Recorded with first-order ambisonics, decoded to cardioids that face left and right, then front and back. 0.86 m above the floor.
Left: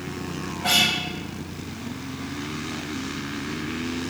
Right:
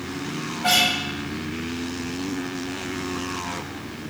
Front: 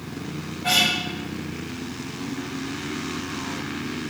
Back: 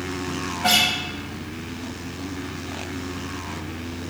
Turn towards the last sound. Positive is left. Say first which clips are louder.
# right 1 dB, back 1 dB
turn(degrees=-160)